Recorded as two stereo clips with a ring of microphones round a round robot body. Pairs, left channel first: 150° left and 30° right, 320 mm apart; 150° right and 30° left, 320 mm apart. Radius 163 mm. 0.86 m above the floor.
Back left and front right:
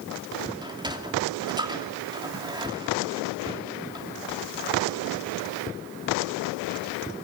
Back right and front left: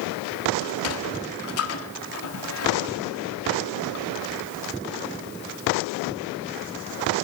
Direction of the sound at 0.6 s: 105° right.